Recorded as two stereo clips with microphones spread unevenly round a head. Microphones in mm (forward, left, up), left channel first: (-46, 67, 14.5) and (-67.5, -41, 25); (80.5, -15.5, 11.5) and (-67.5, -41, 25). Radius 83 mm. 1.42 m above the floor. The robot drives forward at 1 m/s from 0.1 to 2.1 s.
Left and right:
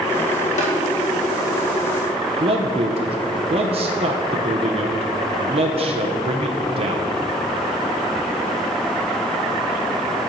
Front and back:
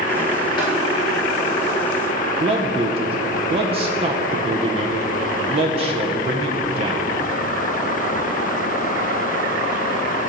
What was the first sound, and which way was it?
Tapping, 70° left.